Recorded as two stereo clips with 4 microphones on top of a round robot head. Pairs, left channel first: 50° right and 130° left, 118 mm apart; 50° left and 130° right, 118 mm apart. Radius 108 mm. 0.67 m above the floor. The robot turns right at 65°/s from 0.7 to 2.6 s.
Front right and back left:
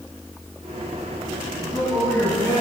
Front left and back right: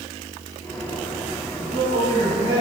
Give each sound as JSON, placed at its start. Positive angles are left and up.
{"t": 1.6, "sound": "a man speaking", "azimuth_deg": -170, "distance_m": 7.0}